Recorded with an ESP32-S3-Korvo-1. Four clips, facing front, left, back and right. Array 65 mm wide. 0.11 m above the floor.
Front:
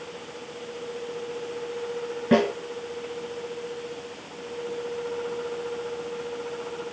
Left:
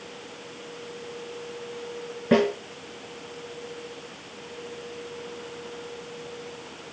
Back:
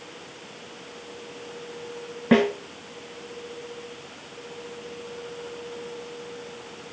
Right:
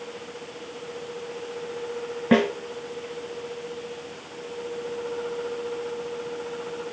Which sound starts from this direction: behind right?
A snare drum, at 2.3 s.